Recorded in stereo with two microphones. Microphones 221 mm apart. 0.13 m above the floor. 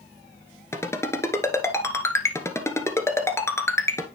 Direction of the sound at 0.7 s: 10° left (ahead or behind).